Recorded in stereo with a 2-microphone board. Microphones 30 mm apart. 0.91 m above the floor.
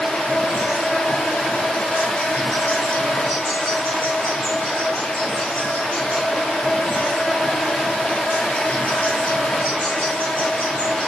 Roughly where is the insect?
Left.